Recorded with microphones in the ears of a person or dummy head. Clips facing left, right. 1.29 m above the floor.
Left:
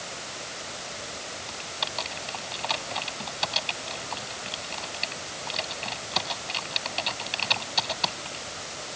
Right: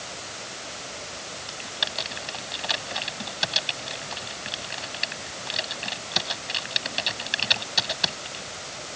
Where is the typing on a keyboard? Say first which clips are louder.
Even; 15° right (ahead or behind).